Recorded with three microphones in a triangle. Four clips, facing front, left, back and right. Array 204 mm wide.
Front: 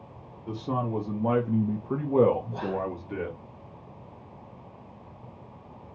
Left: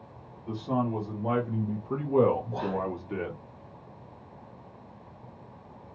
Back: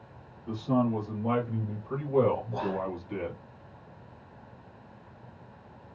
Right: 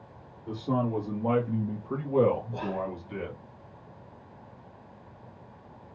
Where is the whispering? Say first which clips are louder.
Left 2 dB, front 1 dB; 90° left, 1.2 m.